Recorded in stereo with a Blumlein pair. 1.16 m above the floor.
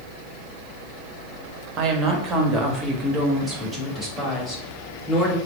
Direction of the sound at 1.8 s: 30° right.